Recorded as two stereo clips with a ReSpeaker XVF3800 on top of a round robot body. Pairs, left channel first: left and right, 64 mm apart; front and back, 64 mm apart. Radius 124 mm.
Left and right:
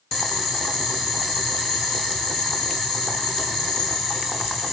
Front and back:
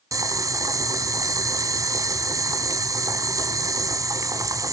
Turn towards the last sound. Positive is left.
turn(degrees=175)